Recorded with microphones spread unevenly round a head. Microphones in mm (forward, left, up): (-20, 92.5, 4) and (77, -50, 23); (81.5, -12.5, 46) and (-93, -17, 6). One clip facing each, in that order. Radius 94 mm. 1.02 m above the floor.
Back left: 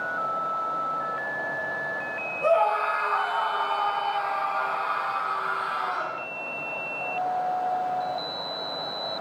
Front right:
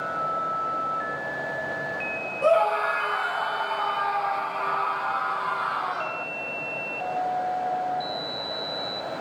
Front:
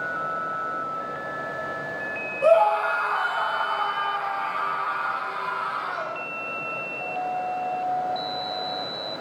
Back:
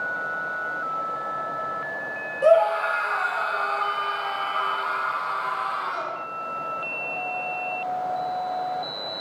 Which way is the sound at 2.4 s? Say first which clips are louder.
Front right 1 dB, back 1 dB; 105° right.